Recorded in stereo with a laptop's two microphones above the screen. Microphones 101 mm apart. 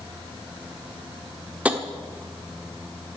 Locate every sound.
1.6 s tapping: 15° right (ahead or behind), 1.1 m